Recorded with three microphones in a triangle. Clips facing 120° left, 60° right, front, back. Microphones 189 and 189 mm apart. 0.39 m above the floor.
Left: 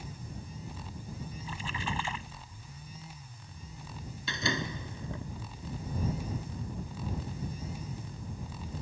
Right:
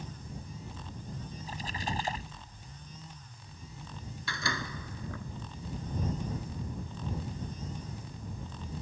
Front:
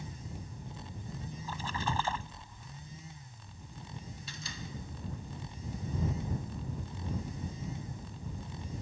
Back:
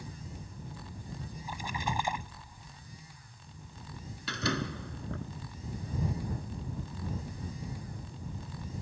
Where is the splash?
105° right.